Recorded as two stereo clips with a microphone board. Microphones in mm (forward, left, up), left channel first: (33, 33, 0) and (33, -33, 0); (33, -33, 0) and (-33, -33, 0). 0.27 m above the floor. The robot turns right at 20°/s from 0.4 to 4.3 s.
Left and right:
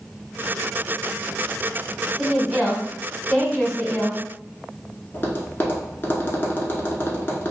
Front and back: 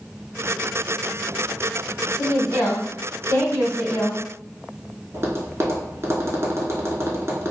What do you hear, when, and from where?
2.2 s a woman speaking: 15° right, 1.4 m; by 4.2 s 25° left, 1.4 m
5.1 s tapping: 140° left, 0.7 m